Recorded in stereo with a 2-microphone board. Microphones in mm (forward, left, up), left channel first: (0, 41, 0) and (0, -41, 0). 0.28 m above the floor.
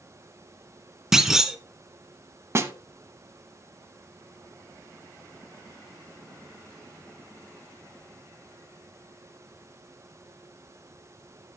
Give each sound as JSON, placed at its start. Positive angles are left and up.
{"t": 1.1, "sound": "a clunk", "side_deg": -5, "distance_m": 0.8}
{"t": 2.5, "sound": "a snare drum", "side_deg": -35, "distance_m": 0.7}